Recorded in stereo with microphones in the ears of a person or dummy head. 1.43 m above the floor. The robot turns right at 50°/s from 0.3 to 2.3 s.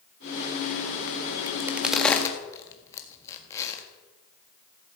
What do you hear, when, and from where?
1.5 s a crack: 25° right (ahead or behind), 1.7 m; by 3.8 s 15° left (ahead or behind), 1.7 m